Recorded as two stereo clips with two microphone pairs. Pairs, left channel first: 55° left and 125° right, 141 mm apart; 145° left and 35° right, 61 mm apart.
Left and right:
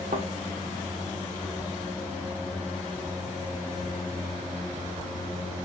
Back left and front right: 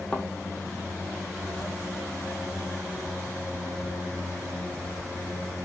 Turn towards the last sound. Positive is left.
turn(degrees=-135)